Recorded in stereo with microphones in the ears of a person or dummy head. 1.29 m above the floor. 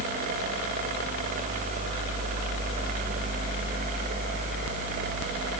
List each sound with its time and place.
Only background noise.